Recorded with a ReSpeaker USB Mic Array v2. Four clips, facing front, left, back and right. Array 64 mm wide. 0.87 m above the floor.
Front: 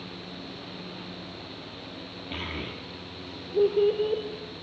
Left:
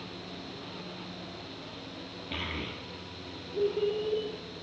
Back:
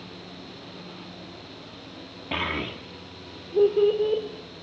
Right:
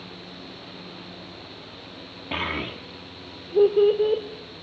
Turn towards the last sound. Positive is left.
turn(degrees=-95)